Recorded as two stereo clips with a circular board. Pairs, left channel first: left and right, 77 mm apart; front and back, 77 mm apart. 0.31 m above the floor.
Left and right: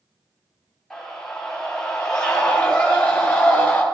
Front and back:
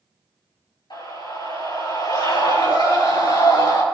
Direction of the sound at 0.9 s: 5° left.